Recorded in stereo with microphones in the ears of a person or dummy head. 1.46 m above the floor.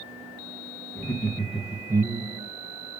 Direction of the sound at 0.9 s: 20° left (ahead or behind).